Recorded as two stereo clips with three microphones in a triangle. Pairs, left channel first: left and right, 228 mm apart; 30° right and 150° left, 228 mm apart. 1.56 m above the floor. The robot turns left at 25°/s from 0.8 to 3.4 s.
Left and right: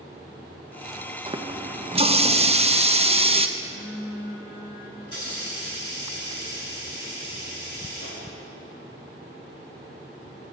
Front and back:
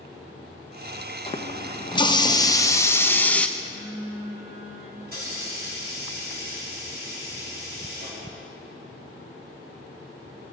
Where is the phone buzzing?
20° right, 3.5 m.